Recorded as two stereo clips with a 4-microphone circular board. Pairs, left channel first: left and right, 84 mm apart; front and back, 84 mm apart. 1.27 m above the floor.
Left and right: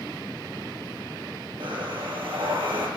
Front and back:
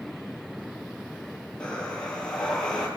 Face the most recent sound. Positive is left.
turn(degrees=-80)